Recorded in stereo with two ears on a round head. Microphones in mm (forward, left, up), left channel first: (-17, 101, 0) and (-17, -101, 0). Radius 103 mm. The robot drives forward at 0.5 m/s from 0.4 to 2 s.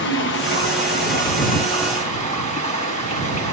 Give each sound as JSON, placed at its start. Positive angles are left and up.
{"t": 0.0, "sound": "running water", "side_deg": 55, "distance_m": 1.0}